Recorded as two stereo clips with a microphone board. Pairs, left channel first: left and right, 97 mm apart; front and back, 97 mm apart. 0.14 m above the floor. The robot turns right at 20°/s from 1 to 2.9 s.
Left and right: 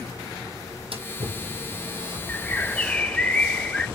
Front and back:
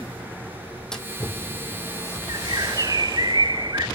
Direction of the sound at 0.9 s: 85° right.